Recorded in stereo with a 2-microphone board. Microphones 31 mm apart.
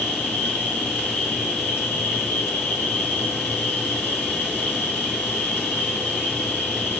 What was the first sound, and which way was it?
An insect, 85° left.